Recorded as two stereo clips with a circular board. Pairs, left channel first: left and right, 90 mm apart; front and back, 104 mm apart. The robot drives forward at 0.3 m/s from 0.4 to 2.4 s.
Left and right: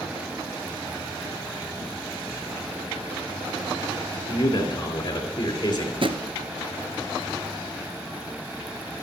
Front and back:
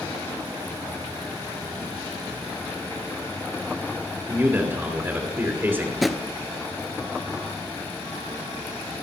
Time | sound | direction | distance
4.3 | a man speaking | 115° left | 3 m
6.0 | a drawer | 90° right | 0.8 m